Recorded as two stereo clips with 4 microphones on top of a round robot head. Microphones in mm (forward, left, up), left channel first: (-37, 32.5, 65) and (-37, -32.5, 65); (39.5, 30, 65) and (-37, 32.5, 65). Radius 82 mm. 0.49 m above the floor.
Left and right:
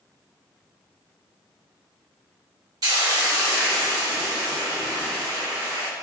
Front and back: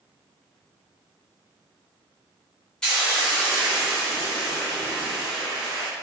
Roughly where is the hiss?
Right.